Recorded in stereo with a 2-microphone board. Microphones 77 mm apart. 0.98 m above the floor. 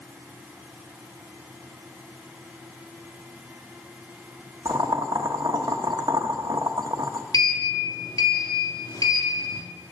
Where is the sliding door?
55° left (ahead or behind), 1.8 m.